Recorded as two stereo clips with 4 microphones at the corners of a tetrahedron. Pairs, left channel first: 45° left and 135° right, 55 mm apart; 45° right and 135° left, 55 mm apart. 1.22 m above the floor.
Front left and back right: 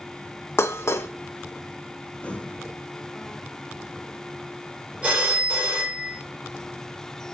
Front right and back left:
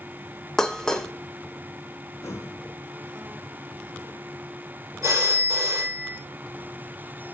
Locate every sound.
0.6 s dishes clattering: 35° left, 0.7 m
2.2 s breathing: 20° right, 1.3 m
5.0 s a phone ringing: 160° left, 3 m